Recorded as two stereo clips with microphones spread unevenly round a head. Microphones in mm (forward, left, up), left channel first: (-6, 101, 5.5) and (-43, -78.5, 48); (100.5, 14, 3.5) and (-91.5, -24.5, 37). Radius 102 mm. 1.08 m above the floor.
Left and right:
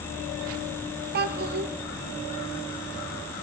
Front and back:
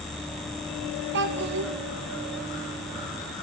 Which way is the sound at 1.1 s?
135° right.